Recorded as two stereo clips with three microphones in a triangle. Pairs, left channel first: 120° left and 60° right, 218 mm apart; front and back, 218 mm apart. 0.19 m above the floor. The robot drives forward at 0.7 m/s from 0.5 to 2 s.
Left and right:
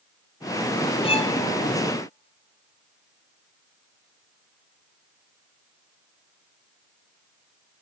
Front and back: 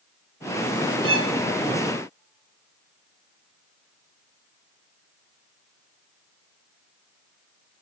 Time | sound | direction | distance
1.0 | a violin | straight behind | 0.7 m